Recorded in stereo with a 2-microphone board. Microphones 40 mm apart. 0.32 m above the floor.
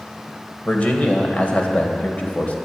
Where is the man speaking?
35° left (ahead or behind), 1.8 m.